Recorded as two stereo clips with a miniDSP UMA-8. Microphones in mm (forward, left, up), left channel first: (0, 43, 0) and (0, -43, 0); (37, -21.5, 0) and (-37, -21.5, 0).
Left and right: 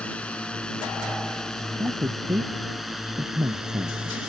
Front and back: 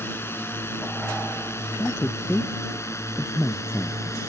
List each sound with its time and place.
0.0 s a drone: 25° left; by 4.3 s 10° right
1.8 s a man speaking: 55° right